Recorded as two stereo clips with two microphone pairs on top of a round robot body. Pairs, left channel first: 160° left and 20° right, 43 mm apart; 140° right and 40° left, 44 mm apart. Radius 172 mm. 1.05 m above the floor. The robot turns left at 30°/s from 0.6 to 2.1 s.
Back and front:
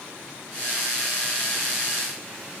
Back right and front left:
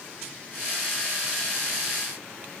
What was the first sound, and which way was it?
Only background noise.